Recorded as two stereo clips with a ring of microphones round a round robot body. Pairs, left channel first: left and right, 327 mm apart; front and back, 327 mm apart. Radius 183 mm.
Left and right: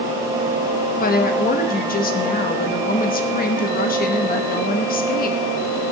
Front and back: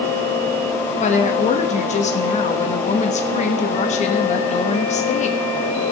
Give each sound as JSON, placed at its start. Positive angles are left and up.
{"t": 1.0, "sound": "a woman speaking", "azimuth_deg": 50, "distance_m": 1.2}